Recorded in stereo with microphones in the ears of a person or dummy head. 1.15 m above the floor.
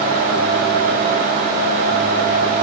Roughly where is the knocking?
I don't hear knocking.